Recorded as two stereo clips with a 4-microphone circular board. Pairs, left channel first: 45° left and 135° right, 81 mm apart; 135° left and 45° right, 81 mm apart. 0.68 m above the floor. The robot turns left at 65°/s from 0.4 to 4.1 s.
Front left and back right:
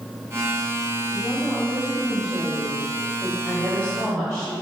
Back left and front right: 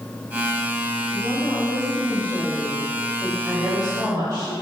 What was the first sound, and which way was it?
A woman speaking, 155° left.